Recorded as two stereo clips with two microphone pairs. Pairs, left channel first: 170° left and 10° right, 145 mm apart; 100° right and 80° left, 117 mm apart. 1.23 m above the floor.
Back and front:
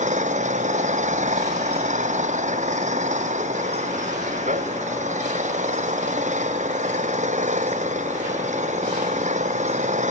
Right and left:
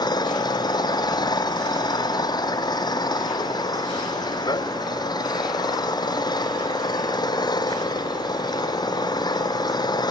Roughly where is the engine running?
Ahead right.